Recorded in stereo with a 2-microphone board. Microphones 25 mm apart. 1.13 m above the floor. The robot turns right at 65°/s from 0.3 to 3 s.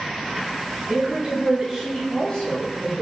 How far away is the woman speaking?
About 2.0 m.